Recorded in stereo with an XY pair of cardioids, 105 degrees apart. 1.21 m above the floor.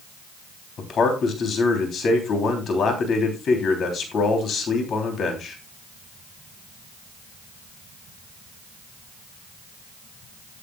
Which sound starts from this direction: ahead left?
A man speaking, at 0.8 s.